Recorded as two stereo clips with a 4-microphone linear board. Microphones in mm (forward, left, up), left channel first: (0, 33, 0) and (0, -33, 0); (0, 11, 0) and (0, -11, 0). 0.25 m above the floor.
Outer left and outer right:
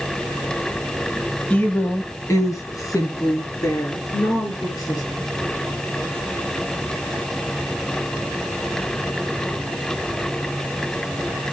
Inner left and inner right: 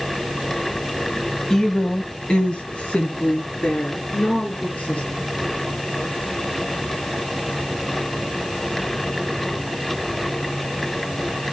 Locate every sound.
1.5 s a woman speaking: 20° left (ahead or behind), 1.4 m; by 5.0 s 75° left (ahead or behind), 5.5 m